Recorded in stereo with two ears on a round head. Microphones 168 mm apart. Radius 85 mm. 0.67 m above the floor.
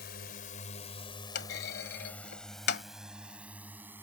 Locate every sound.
0.0 s a drone: 60° left (ahead or behind); by 4.0 s 10° right (ahead or behind)
1.4 s a clunk: 60° left (ahead or behind)